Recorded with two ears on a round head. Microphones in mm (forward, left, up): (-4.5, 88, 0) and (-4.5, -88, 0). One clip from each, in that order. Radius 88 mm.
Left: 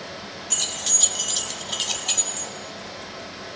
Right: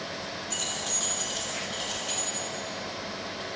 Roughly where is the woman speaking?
I don't hear a woman speaking.